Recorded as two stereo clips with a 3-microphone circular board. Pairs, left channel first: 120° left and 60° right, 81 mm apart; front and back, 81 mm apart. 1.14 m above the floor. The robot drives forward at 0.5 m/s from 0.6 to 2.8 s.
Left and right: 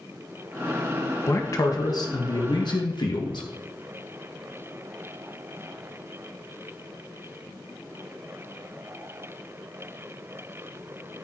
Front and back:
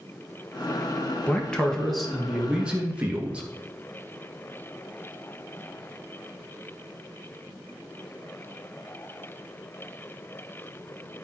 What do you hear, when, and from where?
1.3 s a man speaking: 75° left, 1.5 m; by 3.5 s 105° left, 1.5 m